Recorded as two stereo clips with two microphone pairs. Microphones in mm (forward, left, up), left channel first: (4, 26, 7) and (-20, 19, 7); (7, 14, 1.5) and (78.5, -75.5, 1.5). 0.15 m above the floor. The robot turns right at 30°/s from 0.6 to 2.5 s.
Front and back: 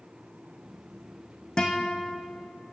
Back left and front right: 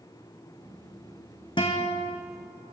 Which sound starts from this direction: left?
A guitar, at 1.6 s.